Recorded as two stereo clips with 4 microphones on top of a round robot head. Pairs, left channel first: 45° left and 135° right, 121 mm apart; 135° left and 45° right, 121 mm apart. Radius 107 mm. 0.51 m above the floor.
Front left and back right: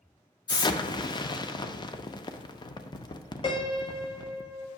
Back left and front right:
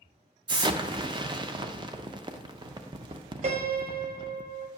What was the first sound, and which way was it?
An explosion, straight ahead.